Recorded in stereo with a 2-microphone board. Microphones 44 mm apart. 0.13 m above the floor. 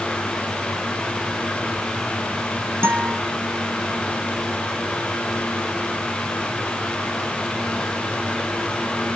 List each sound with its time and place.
2.8 s a guitar: 70° right (ahead or behind), 1.9 m